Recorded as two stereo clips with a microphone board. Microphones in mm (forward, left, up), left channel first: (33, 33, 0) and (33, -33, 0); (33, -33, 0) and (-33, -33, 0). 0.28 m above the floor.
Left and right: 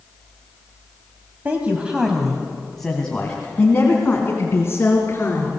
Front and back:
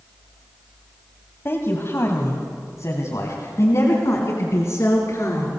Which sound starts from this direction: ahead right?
A man speaking, at 1.4 s.